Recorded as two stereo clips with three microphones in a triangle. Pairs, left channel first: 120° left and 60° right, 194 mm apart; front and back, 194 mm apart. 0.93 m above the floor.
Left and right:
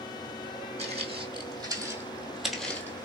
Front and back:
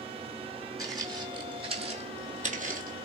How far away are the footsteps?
About 1.8 m.